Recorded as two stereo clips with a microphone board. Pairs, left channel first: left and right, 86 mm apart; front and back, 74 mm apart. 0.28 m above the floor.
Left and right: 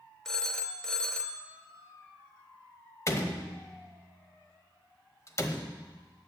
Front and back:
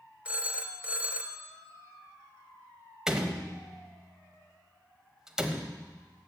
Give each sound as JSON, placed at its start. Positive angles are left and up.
{"t": 0.2, "sound": "a phone ringing", "azimuth_deg": 160, "distance_m": 0.7}
{"t": 3.1, "sound": "a door slam", "azimuth_deg": 105, "distance_m": 0.9}